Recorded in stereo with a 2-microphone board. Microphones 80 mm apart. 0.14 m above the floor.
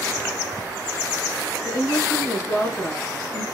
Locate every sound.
1.6 s a woman speaking: 45° left (ahead or behind), 1.4 m